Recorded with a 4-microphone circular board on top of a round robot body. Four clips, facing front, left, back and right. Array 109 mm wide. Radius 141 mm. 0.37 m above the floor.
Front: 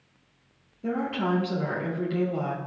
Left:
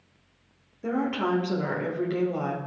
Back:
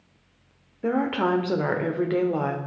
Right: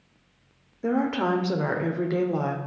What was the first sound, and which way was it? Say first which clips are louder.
A woman speaking: right 3 dB, back 4 dB; 155° right.